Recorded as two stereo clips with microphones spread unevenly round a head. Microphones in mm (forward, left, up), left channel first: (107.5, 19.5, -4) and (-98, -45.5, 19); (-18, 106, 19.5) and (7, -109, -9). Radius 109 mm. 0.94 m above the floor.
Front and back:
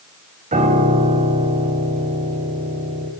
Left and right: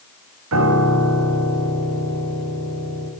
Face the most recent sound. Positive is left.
turn(degrees=-105)